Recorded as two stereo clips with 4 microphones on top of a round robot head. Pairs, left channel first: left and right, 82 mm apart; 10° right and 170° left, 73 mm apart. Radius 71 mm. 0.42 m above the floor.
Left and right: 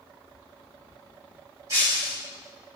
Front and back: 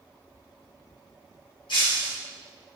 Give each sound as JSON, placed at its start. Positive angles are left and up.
{"t": 1.7, "sound": "breaking glass", "azimuth_deg": -30, "distance_m": 3.5}